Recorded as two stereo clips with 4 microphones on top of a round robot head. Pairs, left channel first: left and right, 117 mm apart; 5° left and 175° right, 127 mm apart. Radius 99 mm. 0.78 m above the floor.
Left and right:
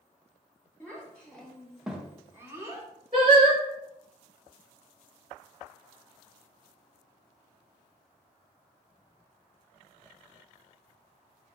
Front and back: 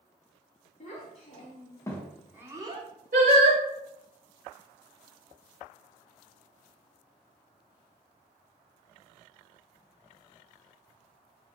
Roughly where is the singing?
Behind right.